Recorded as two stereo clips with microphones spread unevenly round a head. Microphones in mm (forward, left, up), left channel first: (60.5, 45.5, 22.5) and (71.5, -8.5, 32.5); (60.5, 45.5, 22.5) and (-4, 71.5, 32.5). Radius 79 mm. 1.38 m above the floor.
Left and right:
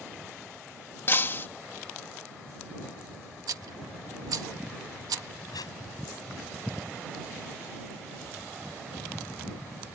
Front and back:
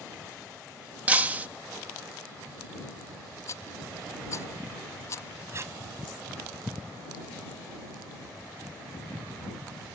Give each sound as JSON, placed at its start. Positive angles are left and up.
{"t": 1.1, "sound": "breaking glass", "azimuth_deg": 145}
{"t": 3.5, "sound": "a rattle", "azimuth_deg": -85}
{"t": 5.5, "sound": "tape being pulled", "azimuth_deg": 115}